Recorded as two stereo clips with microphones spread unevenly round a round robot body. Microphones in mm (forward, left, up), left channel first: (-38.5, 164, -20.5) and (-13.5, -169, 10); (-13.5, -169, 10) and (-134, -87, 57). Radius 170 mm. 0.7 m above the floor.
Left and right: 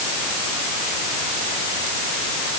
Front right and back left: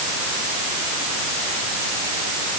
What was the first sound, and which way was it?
Only background noise.